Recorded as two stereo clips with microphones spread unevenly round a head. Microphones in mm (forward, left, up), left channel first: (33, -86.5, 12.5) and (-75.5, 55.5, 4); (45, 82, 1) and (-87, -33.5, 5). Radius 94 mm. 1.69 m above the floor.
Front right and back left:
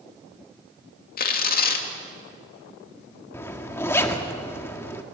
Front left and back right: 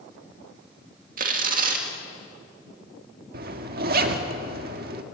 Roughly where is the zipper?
Behind right.